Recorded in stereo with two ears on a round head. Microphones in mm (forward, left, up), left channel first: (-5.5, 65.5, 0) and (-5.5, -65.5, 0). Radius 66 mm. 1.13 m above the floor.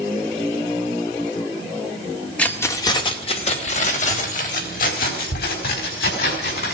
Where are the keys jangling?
10° left (ahead or behind), 1.8 m; by 6.8 s 75° left (ahead or behind), 6.5 m.